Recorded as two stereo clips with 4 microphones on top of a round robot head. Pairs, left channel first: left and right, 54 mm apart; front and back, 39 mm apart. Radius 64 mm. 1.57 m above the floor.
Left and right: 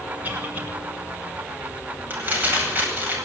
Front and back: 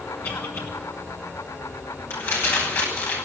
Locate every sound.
0.2 s a cough: 30° right, 6.5 m
2.1 s crumpling: 30° right, 9 m